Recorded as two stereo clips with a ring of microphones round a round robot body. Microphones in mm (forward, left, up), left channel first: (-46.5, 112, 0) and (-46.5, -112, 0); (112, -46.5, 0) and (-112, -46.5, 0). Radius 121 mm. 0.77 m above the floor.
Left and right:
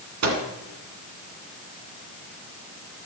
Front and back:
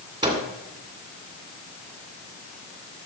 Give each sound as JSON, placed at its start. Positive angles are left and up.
{"t": 0.2, "sound": "a microwave", "azimuth_deg": -110, "distance_m": 2.0}